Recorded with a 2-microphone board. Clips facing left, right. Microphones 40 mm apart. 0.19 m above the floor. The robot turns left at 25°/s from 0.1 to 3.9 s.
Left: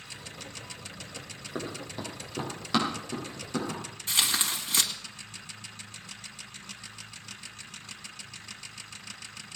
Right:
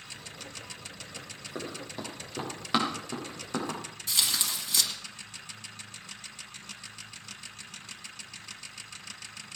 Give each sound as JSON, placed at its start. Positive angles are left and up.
{"t": 1.6, "sound": "running footsteps", "side_deg": 20, "distance_m": 5.0}
{"t": 4.1, "sound": "tearing paper", "side_deg": 35, "distance_m": 2.0}